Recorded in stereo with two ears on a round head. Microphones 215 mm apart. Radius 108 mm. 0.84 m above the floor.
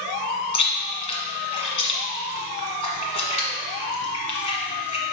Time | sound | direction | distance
0.5 | chewing | 25° left (ahead or behind) | 1.5 m